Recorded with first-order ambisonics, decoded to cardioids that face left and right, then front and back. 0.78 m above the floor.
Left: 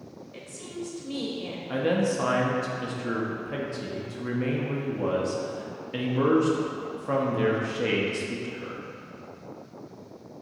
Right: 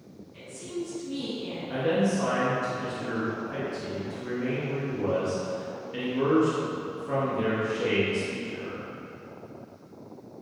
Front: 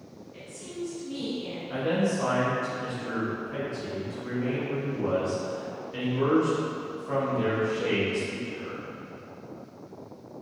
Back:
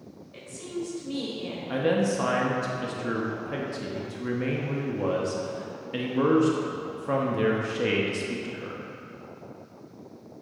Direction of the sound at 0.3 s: 115° left.